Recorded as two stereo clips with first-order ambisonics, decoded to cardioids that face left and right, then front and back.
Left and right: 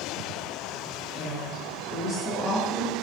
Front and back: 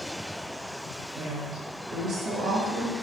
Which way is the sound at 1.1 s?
115° left.